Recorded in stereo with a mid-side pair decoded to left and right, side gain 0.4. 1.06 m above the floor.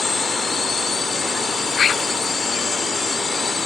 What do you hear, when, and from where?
0.0 s a drone: 40° left